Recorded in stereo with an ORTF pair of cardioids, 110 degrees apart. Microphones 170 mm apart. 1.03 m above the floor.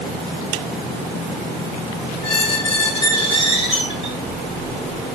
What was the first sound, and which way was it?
A squeak, 35° left.